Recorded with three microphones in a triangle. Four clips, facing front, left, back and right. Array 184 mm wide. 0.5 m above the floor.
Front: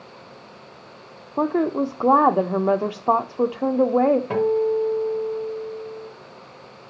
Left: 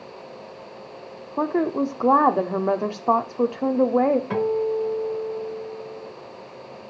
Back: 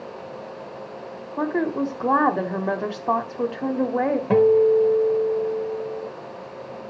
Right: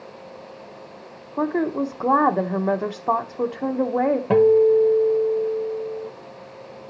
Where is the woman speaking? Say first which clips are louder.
Even, front 2 dB; 20° left, 0.7 m.